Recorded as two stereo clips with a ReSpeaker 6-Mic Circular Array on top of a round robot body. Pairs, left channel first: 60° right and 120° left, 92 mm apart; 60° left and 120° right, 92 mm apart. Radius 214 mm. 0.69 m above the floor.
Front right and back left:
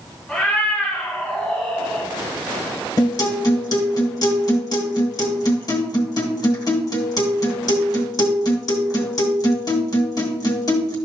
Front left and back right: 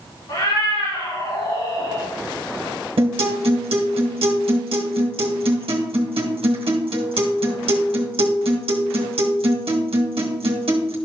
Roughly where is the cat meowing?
Ahead left.